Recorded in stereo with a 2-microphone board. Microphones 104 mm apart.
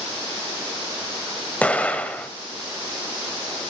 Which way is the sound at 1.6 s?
15° left (ahead or behind).